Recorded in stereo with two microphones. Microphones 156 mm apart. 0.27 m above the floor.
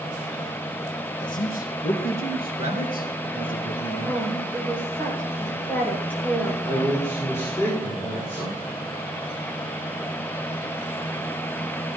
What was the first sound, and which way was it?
A man speaking, 60° left (ahead or behind).